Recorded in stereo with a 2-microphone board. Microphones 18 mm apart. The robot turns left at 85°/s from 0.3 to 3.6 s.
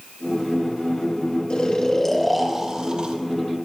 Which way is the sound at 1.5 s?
70° left.